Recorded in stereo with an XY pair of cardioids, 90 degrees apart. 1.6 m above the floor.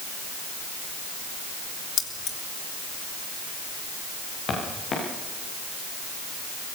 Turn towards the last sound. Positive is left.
turn(degrees=70)